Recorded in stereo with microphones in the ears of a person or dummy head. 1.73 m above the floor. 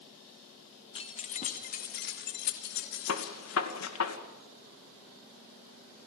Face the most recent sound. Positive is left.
turn(degrees=90)